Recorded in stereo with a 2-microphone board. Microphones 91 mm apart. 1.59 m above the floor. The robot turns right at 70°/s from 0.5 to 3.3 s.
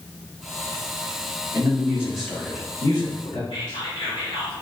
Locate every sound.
1.5 s a man speaking: 45° right, 1.6 m; by 3.4 s 75° left, 1.6 m
3.5 s whispering: 65° left (ahead or behind), 1.8 m